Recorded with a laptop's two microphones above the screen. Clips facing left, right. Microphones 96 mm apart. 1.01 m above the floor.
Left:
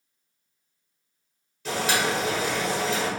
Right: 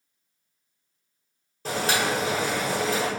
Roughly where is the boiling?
Right.